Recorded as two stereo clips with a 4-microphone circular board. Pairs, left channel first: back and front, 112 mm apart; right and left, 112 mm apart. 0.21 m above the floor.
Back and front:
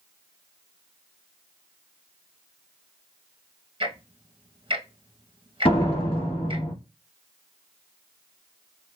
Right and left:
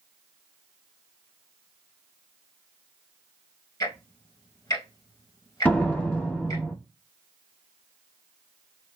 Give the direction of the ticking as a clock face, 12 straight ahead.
1 o'clock.